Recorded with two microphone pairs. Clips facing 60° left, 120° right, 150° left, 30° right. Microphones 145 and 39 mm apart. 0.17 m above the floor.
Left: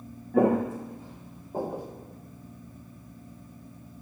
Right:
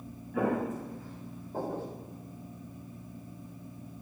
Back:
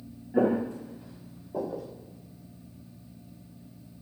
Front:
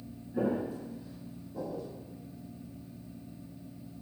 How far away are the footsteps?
About 0.7 m.